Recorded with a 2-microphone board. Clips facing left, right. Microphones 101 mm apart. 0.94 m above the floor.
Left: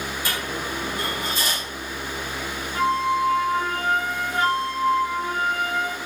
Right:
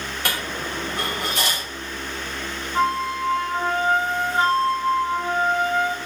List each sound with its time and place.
0.2 s a dropped coin: 70° right (ahead or behind), 2.5 m
2.8 s a flute: 30° right (ahead or behind), 1.5 m